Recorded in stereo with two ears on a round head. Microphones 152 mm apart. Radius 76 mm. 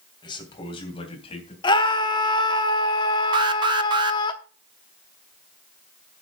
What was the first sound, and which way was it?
A man speaking, 25° left (ahead or behind).